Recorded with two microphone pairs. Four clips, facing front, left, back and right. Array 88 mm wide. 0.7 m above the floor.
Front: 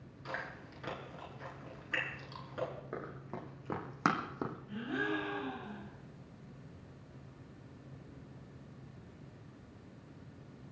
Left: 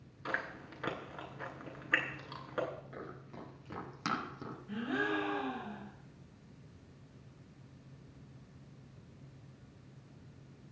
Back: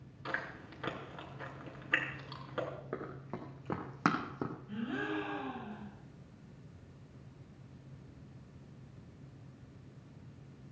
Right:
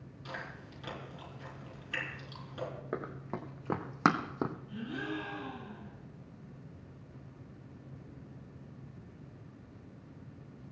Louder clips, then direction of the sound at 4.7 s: Left 4 dB, front 2 dB; 90° left.